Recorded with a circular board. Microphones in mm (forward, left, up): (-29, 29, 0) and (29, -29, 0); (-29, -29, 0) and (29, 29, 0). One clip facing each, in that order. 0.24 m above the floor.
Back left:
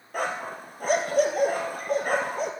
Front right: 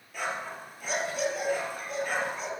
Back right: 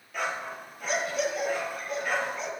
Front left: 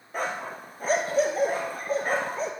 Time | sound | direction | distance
0.1 | a dog barking | 100° left | 1.6 m